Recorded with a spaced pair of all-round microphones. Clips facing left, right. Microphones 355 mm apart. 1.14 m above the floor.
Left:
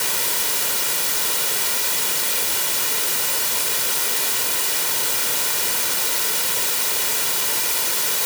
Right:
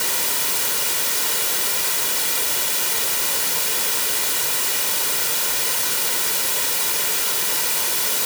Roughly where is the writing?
No writing in this recording.